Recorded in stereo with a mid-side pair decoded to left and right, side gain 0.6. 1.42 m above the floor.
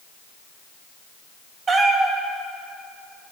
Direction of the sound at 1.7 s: 40° right.